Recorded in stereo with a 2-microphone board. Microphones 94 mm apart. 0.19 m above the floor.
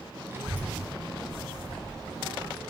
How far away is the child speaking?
About 0.8 m.